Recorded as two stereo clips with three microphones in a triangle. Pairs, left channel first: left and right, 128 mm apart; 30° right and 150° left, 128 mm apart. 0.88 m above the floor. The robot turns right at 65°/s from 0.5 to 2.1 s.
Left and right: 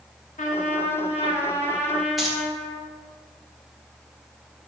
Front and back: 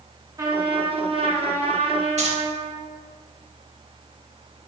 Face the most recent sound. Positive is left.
turn(degrees=180)